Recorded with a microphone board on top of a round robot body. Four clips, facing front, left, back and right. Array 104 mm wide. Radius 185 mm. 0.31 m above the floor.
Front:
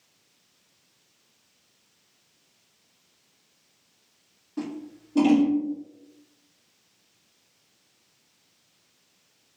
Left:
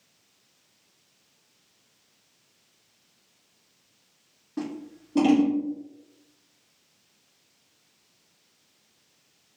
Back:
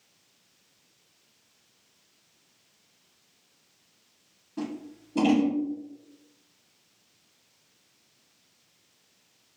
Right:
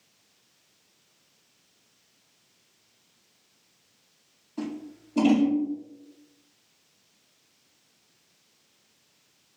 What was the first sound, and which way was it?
Scissors, 80° left.